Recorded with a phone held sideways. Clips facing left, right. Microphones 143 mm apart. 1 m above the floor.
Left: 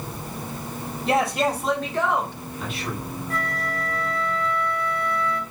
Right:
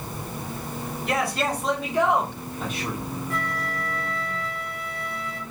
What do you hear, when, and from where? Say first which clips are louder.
1.1 s a man speaking: left 4 dB; 30° left (ahead or behind), 1.0 m; by 3.0 s 50° right (ahead or behind), 1.4 m
3.3 s a flute: left 4 dB; 40° left (ahead or behind), 0.7 m